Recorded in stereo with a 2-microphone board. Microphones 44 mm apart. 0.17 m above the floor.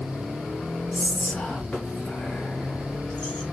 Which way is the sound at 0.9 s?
20° left (ahead or behind).